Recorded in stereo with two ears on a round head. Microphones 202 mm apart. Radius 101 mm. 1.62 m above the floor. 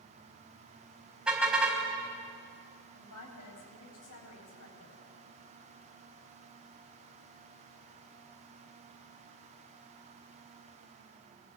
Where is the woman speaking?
85° left, 7.5 m.